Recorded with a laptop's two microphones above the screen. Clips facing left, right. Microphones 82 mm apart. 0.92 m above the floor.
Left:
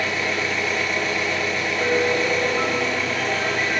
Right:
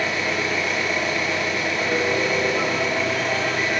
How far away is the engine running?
About 1.0 m.